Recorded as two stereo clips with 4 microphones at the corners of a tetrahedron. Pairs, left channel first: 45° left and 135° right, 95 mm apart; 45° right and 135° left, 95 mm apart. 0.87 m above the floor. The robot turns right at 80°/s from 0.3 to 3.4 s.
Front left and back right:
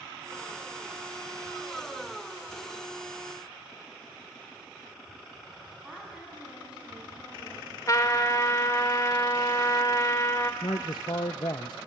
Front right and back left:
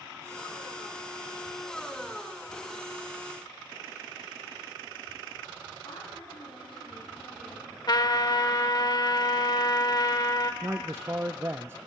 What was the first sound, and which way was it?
A woman speaking, 55° right.